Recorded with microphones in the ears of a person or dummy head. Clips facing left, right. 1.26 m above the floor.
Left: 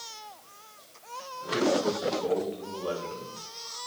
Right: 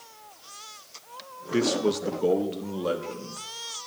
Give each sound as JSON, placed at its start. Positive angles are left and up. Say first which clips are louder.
{"t": 1.5, "sound": "a man speaking", "louder": "right 2 dB", "side_deg": -50, "distance_m": 1.0}